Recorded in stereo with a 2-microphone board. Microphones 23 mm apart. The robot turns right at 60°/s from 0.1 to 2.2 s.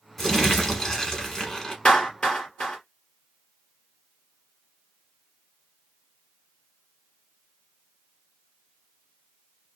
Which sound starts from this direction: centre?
Crumpling, at 0.2 s.